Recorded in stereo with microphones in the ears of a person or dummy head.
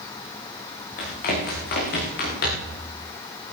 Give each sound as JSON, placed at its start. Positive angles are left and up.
{"t": 1.0, "sound": "running footsteps", "side_deg": 55, "distance_m": 6.5}